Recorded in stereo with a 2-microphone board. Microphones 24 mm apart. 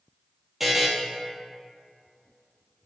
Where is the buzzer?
10° right (ahead or behind), 0.7 m.